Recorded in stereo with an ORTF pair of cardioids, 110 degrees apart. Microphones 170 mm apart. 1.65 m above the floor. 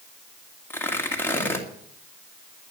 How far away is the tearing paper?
About 2.5 m.